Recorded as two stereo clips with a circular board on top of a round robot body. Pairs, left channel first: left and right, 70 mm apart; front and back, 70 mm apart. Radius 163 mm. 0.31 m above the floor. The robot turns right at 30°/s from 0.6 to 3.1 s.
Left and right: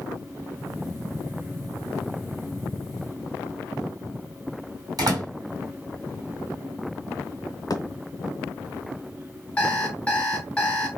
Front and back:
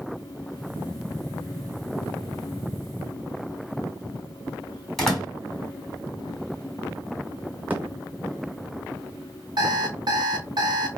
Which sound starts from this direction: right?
A door slam, at 5.0 s.